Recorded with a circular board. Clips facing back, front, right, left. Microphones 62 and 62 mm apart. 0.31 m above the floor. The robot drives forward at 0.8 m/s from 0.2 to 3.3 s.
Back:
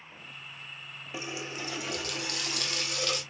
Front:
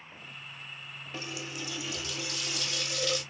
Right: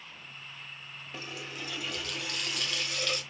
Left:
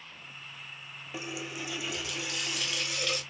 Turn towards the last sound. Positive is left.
turn(degrees=175)